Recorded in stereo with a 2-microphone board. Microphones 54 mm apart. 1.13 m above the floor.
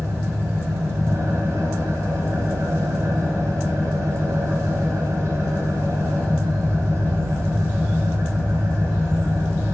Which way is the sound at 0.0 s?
85° right.